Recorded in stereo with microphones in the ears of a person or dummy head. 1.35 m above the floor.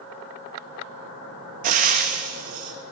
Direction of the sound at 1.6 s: 40° right (ahead or behind).